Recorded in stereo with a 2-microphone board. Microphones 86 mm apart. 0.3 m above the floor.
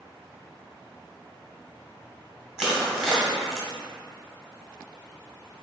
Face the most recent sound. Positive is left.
turn(degrees=-5)  # may be behind; listen again after turning